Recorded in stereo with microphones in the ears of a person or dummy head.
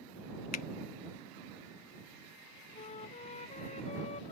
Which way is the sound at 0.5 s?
50° left (ahead or behind).